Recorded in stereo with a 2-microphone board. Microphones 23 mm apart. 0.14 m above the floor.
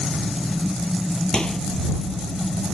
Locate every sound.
1.3 s a microwave: 40° left (ahead or behind)